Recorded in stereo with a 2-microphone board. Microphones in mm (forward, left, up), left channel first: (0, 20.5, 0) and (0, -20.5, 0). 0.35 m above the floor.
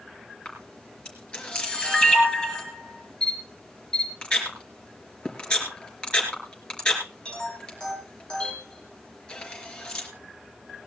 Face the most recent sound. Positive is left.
turn(degrees=20)  # may be behind; listen again after turning